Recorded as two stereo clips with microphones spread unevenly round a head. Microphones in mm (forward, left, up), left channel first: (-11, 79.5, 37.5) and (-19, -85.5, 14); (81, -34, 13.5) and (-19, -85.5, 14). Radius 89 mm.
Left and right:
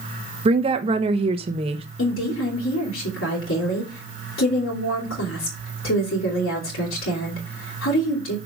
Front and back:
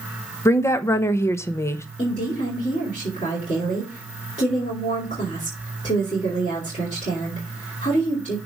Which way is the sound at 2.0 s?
80° left.